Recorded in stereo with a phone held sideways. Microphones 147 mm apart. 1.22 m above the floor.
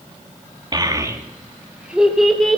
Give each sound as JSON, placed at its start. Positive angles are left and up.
{"t": 0.7, "sound": "a child speaking", "side_deg": -30, "distance_m": 1.4}